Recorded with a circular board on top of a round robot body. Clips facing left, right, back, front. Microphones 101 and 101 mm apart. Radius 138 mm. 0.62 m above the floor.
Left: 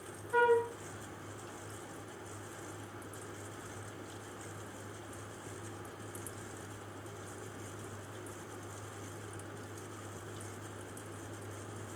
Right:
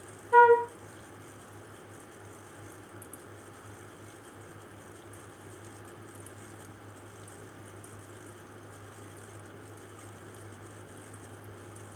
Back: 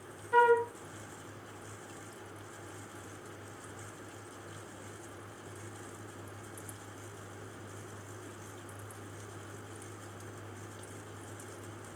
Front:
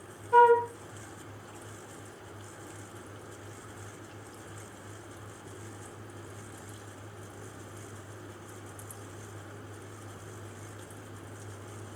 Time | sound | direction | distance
0.3 | a flute | 60° right | 1.0 m